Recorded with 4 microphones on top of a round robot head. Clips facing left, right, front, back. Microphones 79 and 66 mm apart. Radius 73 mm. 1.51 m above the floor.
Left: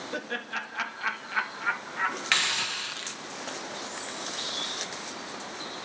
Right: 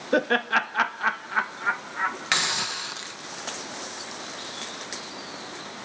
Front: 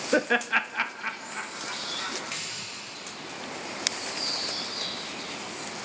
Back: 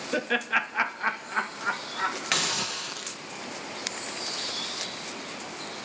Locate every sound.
0.1 s laughter: 65° right, 0.6 m; by 2.2 s 165° right, 1.3 m
2.3 s a hiss: 160° right, 0.7 m